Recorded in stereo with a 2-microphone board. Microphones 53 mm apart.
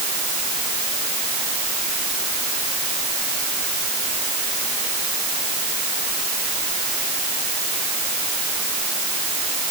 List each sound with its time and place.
Only background noise.